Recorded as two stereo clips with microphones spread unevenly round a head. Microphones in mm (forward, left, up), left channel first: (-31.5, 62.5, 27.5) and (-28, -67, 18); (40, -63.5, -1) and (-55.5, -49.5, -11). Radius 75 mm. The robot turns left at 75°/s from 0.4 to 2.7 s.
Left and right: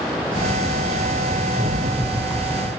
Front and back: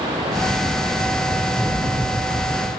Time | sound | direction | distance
1.5 | a rattle | 115° right | 1.9 m